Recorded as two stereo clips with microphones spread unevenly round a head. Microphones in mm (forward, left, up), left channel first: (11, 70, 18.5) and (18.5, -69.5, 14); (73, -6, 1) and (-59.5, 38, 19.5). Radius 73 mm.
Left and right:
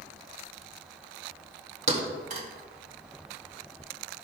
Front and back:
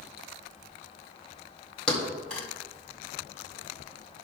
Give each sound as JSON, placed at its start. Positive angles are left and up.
{"t": 1.9, "sound": "a thud", "azimuth_deg": -110, "distance_m": 1.6}